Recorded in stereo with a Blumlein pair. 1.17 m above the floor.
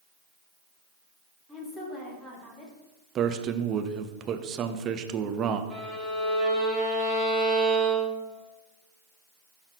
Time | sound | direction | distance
1.5 | a woman speaking | straight ahead | 2 m
3.1 | a man speaking | 30° right | 0.7 m
5.7 | a violin | 10° right | 1.6 m